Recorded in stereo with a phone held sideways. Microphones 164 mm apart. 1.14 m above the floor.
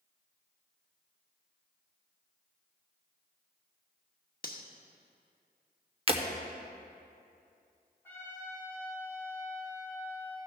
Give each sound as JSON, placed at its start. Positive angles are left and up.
{"t": 4.4, "sound": "cutlery clinking", "side_deg": 65, "distance_m": 1.0}
{"t": 6.1, "sound": "breaking glass", "side_deg": -35, "distance_m": 0.9}
{"t": 8.0, "sound": "a trumpet", "side_deg": 15, "distance_m": 4.5}